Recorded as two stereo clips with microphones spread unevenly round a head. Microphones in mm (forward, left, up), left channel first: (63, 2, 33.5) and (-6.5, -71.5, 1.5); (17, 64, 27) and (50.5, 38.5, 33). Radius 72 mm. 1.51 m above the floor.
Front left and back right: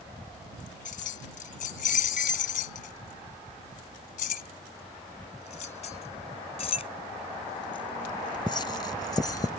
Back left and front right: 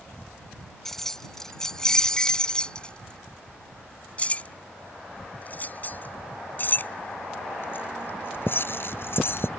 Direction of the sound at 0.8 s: 60° left.